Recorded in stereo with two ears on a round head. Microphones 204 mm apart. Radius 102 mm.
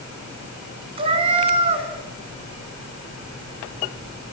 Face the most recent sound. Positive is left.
turn(degrees=-25)  # may be behind; listen again after turning